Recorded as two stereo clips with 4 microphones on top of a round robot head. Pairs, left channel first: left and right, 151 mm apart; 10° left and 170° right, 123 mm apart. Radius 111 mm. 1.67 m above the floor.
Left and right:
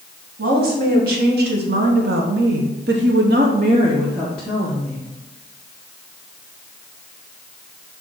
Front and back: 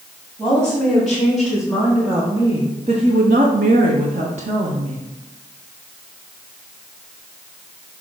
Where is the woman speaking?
75° right, 2.0 m; by 5.1 s 160° left, 1.1 m.